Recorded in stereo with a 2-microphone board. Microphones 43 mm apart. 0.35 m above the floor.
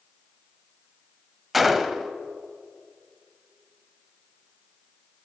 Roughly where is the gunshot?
Centre.